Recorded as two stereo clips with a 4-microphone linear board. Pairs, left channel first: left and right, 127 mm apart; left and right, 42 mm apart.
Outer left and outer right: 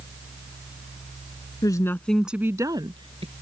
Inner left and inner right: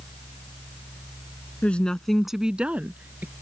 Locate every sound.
1.6 s a woman speaking: 35° left (ahead or behind); by 3.3 s 50° right (ahead or behind)